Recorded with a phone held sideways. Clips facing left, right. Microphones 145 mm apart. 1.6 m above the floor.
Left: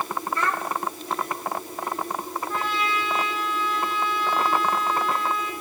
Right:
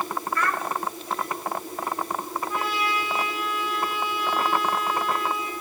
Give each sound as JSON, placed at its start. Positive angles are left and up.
{"t": 0.3, "sound": "a child speaking", "side_deg": 25, "distance_m": 1.8}
{"t": 2.5, "sound": "a trumpet", "side_deg": -10, "distance_m": 6.0}